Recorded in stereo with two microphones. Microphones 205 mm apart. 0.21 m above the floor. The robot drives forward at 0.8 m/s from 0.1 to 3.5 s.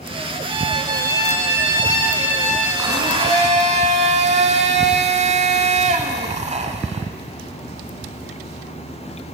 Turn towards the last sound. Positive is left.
turn(degrees=-35)  # may be behind; listen again after turning